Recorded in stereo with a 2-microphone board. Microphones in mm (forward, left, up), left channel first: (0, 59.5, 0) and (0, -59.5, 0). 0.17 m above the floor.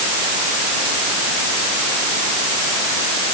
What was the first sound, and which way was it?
Only background noise.